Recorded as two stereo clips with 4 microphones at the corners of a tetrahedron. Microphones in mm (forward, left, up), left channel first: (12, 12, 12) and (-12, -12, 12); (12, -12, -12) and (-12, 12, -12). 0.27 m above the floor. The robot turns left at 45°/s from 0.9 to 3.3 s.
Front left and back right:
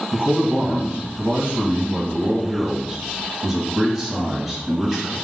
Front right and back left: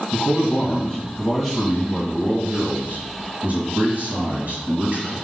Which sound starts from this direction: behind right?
A man speaking, at 0.1 s.